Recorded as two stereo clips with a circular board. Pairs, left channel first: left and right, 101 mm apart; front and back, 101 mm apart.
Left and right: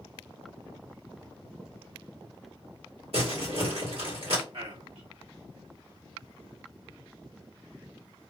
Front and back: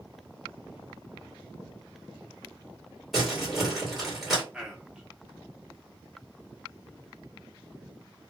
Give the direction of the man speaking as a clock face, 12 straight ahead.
3 o'clock.